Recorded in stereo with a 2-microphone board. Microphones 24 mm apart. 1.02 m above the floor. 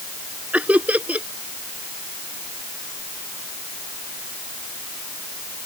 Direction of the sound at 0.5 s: 85° right.